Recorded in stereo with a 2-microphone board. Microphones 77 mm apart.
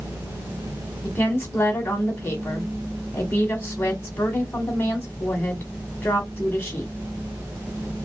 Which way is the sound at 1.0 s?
20° left (ahead or behind).